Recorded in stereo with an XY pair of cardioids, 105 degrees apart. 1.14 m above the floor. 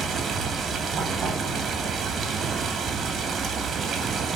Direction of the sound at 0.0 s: 55° right.